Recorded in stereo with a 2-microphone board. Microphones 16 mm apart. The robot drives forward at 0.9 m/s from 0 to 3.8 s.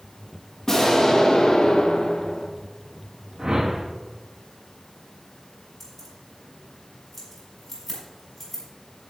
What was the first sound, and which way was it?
An explosion, 30° left (ahead or behind).